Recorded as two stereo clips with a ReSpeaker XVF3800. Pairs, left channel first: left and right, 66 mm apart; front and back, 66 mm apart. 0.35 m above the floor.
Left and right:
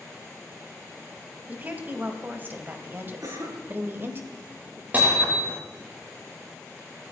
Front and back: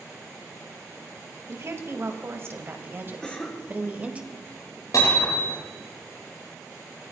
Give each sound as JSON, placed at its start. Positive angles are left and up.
{"t": 1.5, "sound": "a woman speaking", "azimuth_deg": -145, "distance_m": 2.5}
{"t": 3.2, "sound": "a cough", "azimuth_deg": -80, "distance_m": 5.5}
{"t": 4.9, "sound": "hammering", "azimuth_deg": -30, "distance_m": 9.5}